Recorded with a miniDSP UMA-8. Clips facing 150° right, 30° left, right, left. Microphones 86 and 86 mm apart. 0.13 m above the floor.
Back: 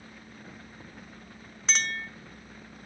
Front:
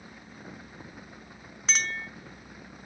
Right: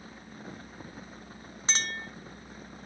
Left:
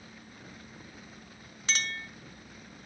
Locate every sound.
1.7 s a clink: 60° right, 0.9 m